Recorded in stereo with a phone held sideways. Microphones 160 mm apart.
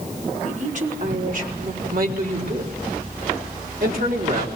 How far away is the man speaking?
About 4 m.